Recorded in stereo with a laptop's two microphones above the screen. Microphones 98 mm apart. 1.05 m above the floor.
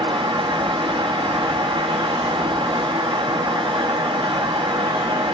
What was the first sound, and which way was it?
A fan, 65° right (ahead or behind).